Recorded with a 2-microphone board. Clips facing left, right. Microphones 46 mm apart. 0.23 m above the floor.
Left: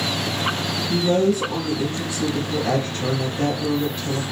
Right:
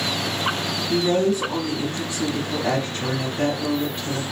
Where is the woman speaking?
40° right (ahead or behind), 1.5 m.